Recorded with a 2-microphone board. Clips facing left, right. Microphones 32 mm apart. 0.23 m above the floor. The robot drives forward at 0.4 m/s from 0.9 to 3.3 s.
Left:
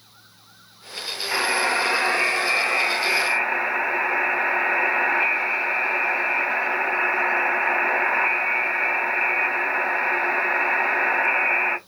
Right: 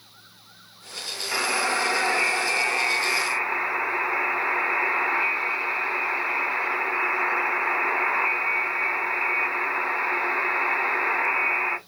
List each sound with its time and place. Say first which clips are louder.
1.3 s a buzzer: left 3 dB; 30° left (ahead or behind), 1.8 m; by 11.8 s 35° left (ahead or behind), 1.7 m